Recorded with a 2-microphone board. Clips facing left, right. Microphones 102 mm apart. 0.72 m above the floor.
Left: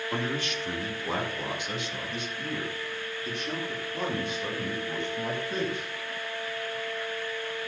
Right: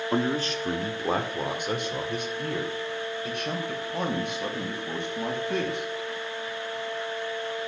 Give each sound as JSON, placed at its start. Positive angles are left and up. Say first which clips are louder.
{"t": 0.1, "sound": "a man speaking", "louder": "right 6 dB", "side_deg": -30, "distance_m": 1.0}